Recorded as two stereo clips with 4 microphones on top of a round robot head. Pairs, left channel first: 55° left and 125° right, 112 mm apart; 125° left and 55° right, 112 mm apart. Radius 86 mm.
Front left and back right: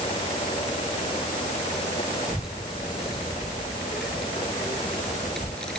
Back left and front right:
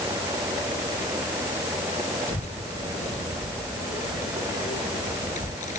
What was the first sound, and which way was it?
A child speaking, 150° left.